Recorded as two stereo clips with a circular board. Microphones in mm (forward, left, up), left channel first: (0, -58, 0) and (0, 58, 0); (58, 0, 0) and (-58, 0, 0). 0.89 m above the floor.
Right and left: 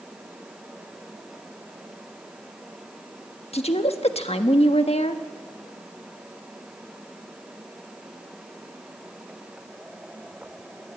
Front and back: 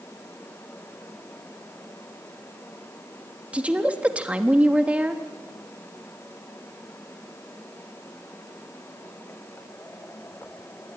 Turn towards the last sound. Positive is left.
turn(degrees=-100)